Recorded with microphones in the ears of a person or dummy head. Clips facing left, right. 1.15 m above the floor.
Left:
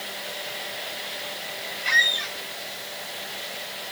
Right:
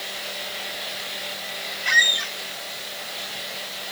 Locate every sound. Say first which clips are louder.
1.9 s a squeak: right 2 dB; centre (ahead or behind), 0.8 m